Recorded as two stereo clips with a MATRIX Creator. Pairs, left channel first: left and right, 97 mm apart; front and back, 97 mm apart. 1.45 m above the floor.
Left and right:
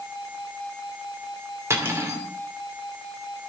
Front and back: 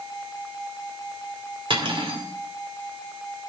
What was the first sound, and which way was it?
Cutlery clinking, 150° right.